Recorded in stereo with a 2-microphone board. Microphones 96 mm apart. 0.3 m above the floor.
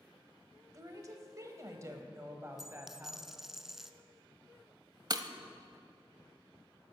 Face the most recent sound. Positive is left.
turn(degrees=-45)  # may be behind; listen again after turning